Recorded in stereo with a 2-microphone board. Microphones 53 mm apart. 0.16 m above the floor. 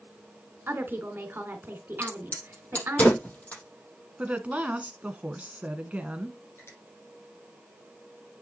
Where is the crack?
35° left (ahead or behind), 4.5 m.